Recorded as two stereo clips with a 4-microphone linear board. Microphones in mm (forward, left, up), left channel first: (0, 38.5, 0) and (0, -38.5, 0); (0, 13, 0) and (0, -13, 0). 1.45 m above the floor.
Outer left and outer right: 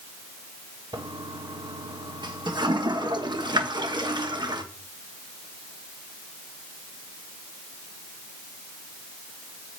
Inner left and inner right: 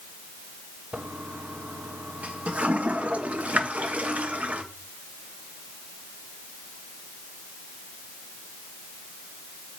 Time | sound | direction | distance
0.9 | a toilet flushing | 70° right (ahead or behind) | 1.4 m